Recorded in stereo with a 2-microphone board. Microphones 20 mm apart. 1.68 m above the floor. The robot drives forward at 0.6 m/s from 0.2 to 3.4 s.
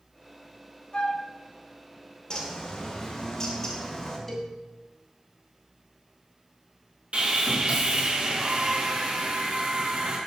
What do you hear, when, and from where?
0.9 s a flute: 45° left (ahead or behind), 1.1 m
2.3 s a bird: 35° left (ahead or behind), 2 m; by 4.2 s 25° left (ahead or behind), 2.5 m
4.3 s a cowbell: 10° left (ahead or behind), 2 m
7.1 s sawing: 70° right (ahead or behind), 3 m